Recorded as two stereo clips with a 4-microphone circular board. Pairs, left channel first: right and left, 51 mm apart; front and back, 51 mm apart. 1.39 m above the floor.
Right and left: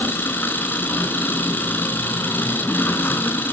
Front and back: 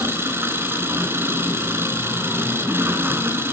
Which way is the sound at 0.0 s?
140° right.